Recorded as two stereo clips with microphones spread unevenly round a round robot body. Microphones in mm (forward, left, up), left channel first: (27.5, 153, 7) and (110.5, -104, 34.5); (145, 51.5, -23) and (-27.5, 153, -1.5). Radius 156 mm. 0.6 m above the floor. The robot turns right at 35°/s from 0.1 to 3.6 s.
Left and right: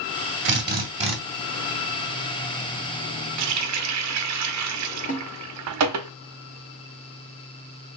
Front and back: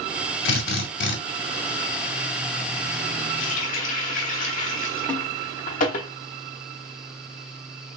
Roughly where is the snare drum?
Ahead left.